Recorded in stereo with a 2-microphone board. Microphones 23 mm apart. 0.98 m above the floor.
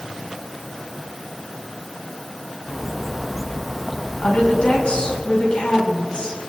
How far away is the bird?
About 1.0 m.